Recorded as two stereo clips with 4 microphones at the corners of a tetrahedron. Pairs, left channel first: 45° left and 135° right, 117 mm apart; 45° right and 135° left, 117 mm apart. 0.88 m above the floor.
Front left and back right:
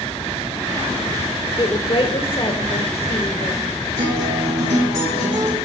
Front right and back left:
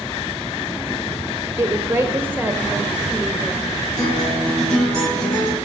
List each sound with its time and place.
1.6 s a woman speaking: 80° left, 1.3 m; by 3.7 s 50° left, 2.0 m
4.0 s a guitar: 130° right, 6.5 m